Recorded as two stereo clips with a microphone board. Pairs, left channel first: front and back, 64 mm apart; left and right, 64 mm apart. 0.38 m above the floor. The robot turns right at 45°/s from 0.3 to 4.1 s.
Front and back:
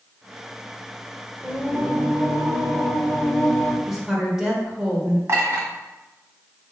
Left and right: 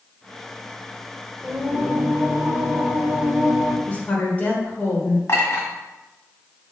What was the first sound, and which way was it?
Singing, 155° right.